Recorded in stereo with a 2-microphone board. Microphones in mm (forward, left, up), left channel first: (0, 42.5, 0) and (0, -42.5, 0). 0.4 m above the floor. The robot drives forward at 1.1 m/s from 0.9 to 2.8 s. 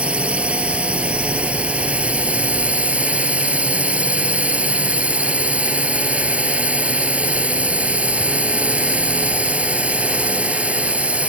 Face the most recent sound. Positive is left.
turn(degrees=-15)  # may be behind; listen again after turning